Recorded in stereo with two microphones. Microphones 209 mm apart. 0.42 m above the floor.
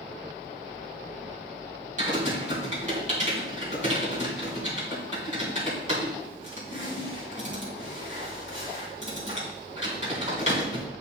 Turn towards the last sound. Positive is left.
turn(degrees=-35)  # may be behind; listen again after turning